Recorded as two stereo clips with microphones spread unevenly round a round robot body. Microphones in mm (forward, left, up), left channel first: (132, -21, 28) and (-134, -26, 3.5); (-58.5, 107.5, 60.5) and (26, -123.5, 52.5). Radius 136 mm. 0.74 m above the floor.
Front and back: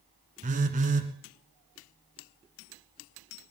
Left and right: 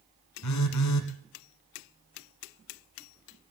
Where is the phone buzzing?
115° left, 1.4 m.